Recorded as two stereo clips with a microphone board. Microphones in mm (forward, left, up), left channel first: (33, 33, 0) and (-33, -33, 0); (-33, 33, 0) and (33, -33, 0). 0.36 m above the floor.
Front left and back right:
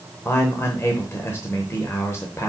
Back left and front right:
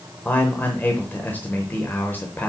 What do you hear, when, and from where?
0.2 s a man speaking: 80° left, 0.9 m